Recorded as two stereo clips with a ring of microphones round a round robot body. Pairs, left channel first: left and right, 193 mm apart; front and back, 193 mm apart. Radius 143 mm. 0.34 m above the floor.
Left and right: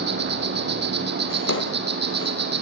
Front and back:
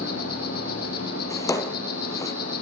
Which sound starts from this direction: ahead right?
An insect, at 0.0 s.